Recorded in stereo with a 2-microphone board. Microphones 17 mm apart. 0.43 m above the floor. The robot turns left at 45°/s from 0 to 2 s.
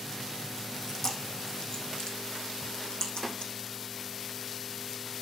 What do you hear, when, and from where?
0.8 s chewing: 10° left (ahead or behind), 3 m; by 3.5 s 60° left (ahead or behind), 3 m